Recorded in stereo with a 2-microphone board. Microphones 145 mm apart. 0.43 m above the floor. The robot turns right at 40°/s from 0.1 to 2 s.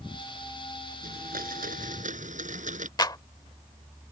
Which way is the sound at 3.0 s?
30° left (ahead or behind).